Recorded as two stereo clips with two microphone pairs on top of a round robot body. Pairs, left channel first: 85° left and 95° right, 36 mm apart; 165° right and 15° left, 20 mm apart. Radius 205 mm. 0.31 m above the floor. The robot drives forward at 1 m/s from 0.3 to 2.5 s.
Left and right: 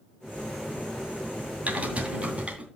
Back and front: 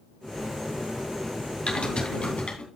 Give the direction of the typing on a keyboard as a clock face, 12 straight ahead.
4 o'clock.